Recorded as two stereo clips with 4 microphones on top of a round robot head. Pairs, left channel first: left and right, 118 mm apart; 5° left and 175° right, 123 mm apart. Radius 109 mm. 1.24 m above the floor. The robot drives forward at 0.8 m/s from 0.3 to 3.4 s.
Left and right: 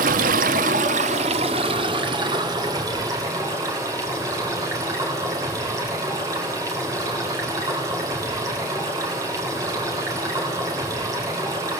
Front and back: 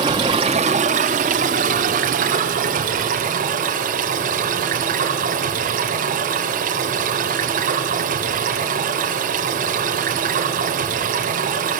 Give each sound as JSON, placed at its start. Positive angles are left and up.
{"t": 0.0, "sound": "running water", "azimuth_deg": -110, "distance_m": 1.1}